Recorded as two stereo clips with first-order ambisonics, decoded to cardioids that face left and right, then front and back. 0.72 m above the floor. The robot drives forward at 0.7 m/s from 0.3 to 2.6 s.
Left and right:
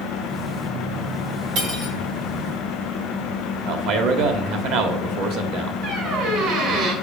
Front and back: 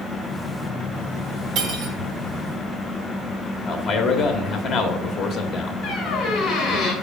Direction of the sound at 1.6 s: 130° right.